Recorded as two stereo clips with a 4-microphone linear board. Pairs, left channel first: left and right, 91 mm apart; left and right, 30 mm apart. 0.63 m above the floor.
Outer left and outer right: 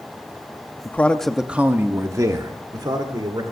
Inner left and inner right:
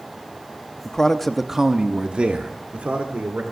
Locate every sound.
0.8 s a man speaking: 25° left (ahead or behind), 0.8 m; by 3.4 s 50° right (ahead or behind), 2 m